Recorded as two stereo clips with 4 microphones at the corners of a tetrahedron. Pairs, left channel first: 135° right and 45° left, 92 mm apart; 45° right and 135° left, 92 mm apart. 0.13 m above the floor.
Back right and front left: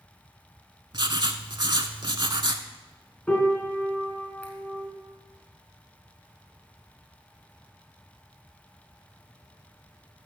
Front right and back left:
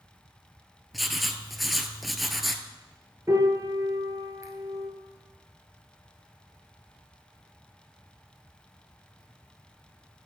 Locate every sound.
0.9 s writing: 45° left, 0.6 m
3.3 s a piano: 155° left, 1.3 m